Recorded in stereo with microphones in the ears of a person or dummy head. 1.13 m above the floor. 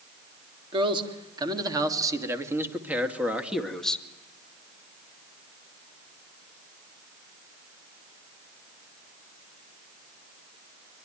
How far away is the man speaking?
About 3 m.